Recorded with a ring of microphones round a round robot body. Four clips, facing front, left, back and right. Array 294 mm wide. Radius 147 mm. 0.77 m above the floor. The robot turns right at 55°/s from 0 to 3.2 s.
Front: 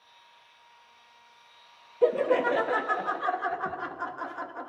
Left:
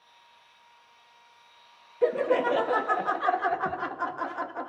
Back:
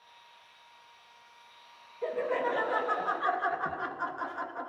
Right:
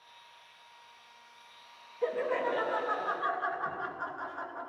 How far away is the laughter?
About 0.7 m.